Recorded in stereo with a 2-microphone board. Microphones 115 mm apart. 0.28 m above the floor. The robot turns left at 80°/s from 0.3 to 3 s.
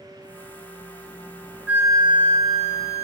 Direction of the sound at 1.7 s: 10° right.